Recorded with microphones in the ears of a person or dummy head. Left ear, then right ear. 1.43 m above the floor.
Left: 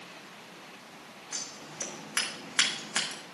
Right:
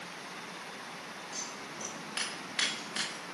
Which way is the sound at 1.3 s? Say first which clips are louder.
Left 4 dB; 45° left (ahead or behind).